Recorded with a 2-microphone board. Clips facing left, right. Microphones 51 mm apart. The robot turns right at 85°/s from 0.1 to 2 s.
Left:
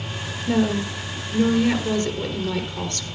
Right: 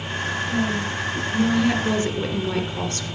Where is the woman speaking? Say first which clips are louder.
Left 6 dB; 70° left, 3 m; by 3.0 s 160° right, 3 m.